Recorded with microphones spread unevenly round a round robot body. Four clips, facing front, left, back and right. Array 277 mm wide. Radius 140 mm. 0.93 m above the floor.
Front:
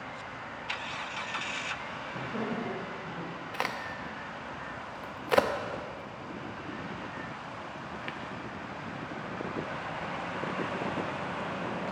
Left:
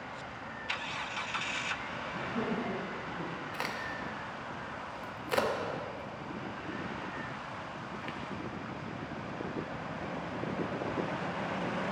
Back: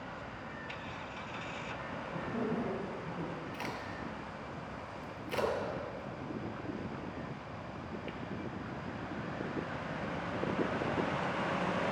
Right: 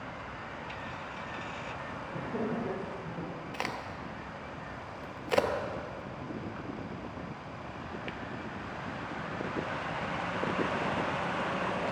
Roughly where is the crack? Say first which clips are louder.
Right 2 dB, front 5 dB; ahead.